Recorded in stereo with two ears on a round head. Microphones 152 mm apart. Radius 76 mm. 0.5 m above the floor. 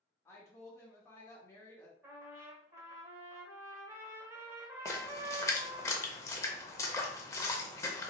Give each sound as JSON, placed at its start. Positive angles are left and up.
{"t": 0.2, "sound": "a woman speaking", "side_deg": 15, "distance_m": 1.2}
{"t": 2.0, "sound": "a trumpet", "side_deg": -15, "distance_m": 1.0}
{"t": 4.8, "sound": "a splash", "side_deg": 15, "distance_m": 0.6}